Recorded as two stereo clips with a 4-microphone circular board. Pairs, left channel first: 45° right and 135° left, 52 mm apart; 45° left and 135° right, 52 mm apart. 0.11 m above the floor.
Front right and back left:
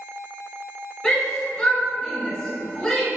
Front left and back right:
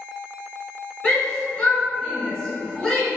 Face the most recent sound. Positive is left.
turn(degrees=0)